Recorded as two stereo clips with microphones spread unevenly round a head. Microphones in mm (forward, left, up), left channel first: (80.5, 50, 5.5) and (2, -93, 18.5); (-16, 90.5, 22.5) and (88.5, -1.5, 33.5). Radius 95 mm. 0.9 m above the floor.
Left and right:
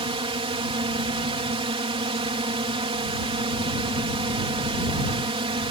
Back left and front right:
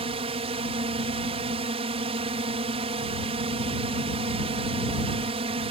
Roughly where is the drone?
Right.